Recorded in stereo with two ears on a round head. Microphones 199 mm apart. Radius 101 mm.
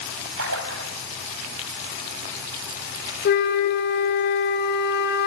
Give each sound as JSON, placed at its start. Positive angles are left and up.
{"t": 0.4, "sound": "a splash", "side_deg": -70, "distance_m": 3.5}
{"t": 3.2, "sound": "a flute", "side_deg": 50, "distance_m": 2.0}